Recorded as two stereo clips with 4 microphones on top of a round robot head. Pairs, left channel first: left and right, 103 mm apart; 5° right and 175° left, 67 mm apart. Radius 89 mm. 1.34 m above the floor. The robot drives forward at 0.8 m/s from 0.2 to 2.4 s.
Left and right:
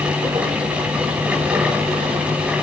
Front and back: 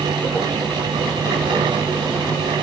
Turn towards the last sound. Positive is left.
No sound to turn to.